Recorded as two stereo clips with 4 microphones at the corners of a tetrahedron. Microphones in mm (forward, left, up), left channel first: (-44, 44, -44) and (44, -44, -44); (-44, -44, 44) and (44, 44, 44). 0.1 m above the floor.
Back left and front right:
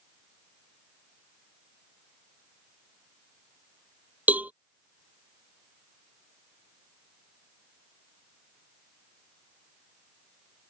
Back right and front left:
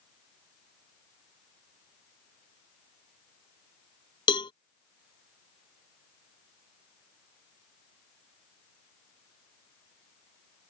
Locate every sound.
4.3 s a cowbell: 115° right